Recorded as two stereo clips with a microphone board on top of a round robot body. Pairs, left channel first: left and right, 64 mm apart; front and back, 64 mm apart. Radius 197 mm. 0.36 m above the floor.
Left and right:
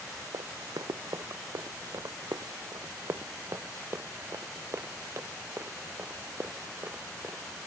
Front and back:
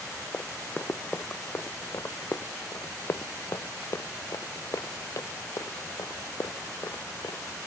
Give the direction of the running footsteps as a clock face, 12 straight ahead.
2 o'clock.